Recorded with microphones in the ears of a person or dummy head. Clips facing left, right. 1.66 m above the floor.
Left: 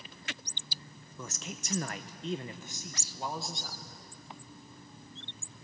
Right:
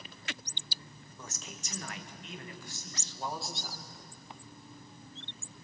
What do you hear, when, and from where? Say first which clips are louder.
1.2 s a man speaking: left 5 dB; 60° left (ahead or behind), 1.3 m; by 3.8 s 5° right (ahead or behind), 1.7 m